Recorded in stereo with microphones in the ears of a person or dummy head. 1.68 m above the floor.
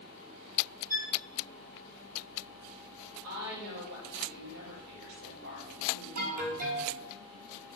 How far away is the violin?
About 1.0 m.